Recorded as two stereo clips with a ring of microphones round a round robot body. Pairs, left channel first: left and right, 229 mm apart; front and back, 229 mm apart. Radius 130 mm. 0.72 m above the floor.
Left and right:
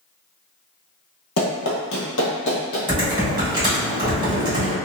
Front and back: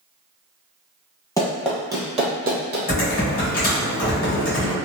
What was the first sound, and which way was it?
Running footsteps, 75° left.